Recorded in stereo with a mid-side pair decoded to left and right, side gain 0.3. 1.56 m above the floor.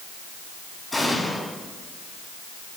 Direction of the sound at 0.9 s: 20° left.